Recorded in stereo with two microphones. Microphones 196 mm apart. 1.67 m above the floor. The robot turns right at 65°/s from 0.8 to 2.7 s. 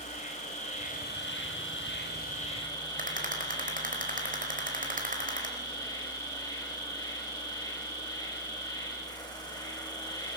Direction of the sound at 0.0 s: 35° left.